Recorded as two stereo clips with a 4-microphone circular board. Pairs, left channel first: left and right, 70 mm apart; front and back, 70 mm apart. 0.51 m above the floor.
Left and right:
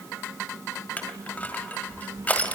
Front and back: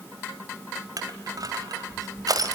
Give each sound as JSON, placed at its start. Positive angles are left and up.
{"t": 1.0, "sound": "crushing", "azimuth_deg": 155, "distance_m": 2.5}